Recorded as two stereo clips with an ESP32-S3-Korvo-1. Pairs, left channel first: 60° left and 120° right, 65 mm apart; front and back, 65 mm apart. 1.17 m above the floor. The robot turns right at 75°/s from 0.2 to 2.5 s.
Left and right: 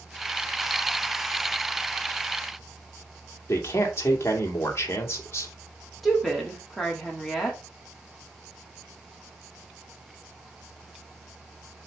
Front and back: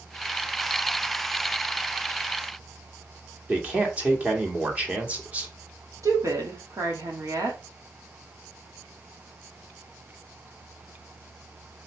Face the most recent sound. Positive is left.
turn(degrees=150)